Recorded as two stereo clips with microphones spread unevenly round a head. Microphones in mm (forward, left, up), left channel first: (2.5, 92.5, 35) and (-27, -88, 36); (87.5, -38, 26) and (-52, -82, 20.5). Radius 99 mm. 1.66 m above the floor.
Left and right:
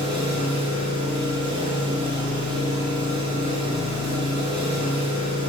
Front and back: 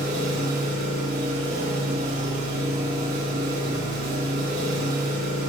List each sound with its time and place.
0.0 s an engine running: 160° right, 8 m